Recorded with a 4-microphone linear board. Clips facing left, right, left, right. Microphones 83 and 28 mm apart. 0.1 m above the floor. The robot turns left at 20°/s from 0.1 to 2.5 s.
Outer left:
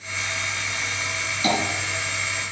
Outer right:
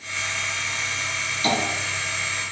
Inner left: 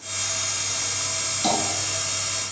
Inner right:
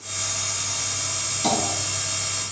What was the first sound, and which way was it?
Tapping, 25° left (ahead or behind).